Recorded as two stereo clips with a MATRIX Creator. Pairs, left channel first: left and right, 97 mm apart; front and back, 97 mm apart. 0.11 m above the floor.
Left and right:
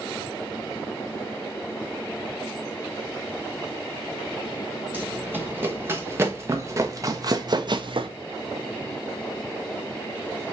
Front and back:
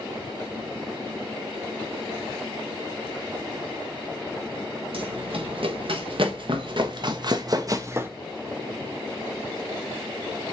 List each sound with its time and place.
4.9 s running footsteps: 160° right, 2 m; by 8.1 s 110° right, 0.6 m